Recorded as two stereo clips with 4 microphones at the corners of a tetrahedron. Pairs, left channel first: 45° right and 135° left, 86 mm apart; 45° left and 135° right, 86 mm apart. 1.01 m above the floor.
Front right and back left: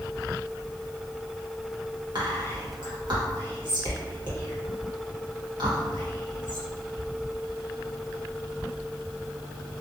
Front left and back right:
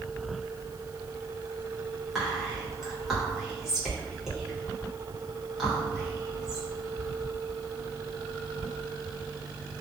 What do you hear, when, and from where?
2.1 s whispering: 140° left, 1.3 m